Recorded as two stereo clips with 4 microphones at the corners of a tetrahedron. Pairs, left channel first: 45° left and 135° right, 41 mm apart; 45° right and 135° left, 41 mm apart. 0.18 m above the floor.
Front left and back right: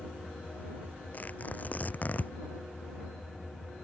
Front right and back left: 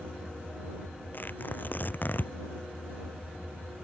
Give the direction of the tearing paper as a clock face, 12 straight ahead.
12 o'clock.